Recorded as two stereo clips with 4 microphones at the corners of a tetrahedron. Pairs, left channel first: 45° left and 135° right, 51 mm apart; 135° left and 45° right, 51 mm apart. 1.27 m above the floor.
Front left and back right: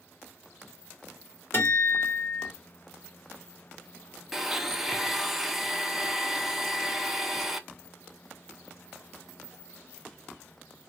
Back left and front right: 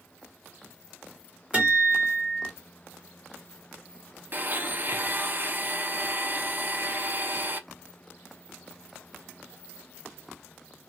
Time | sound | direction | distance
1.5 | a guitar | 15° left | 2 m
4.3 | a blender | 55° right | 0.5 m